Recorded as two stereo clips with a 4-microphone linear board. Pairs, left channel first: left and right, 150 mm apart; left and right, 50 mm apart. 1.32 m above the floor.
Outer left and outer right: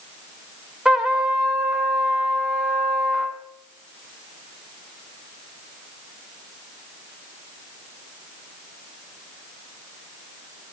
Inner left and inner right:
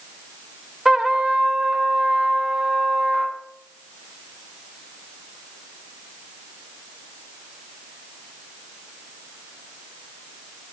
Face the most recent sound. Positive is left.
turn(degrees=-5)  # may be behind; listen again after turning